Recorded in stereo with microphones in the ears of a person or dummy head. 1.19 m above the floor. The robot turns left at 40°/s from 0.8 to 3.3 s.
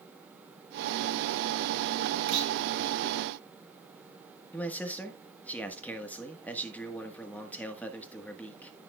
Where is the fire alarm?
I don't hear a fire alarm.